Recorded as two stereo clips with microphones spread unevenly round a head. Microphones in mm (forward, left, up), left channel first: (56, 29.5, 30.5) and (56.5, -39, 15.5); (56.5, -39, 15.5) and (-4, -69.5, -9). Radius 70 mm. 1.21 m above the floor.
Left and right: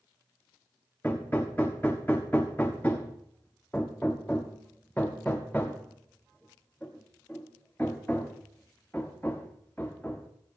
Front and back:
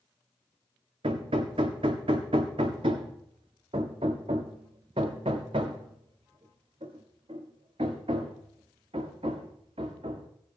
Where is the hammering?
160° left, 1.0 m.